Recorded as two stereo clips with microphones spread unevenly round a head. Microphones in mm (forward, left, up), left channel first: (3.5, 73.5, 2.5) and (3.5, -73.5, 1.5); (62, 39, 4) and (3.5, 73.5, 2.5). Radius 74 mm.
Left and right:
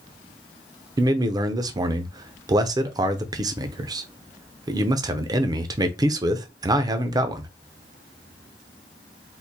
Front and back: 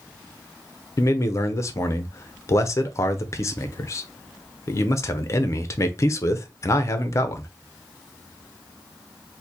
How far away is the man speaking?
About 0.5 m.